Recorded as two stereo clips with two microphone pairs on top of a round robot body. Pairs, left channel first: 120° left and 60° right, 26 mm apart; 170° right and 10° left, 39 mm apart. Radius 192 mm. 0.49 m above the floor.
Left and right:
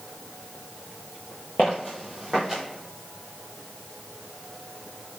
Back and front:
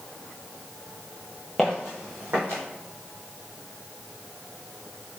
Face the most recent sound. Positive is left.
turn(degrees=30)